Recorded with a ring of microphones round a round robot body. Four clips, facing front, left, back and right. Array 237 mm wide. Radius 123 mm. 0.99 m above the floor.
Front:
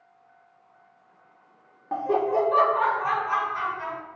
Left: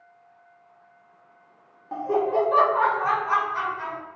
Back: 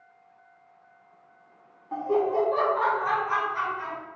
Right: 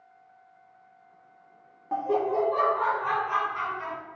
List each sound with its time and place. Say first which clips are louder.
1.9 s laughter: left 2 dB, front 1 dB; 15° right, 0.5 m; by 4.0 s 95° left, 1.3 m